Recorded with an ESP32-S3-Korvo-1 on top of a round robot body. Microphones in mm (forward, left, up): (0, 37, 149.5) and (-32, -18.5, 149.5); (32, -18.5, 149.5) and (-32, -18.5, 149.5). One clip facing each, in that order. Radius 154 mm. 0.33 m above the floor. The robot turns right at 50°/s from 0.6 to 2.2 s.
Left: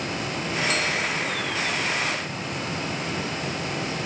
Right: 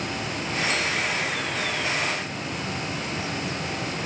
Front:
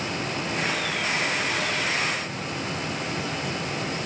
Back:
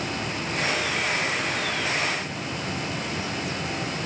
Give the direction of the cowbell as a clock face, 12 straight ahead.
No cowbell in this recording.